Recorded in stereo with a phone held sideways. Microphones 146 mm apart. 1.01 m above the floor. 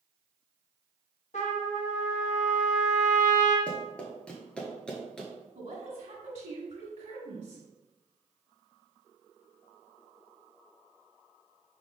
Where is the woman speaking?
65° right (ahead or behind), 1.8 m.